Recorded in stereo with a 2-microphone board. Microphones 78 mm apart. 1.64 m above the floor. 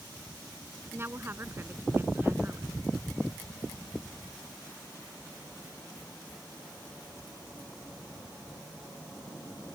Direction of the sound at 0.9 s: 30° right (ahead or behind).